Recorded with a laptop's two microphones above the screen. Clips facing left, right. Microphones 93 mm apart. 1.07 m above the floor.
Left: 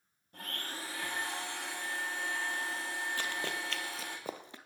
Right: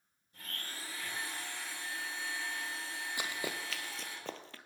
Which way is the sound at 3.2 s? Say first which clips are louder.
Left 2 dB; 15° right (ahead or behind).